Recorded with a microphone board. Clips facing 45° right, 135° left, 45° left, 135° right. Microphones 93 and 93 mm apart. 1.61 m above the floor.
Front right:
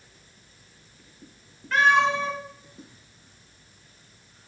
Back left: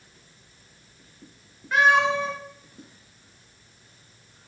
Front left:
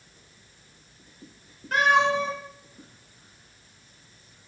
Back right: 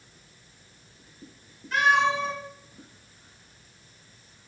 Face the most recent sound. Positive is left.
turn(degrees=65)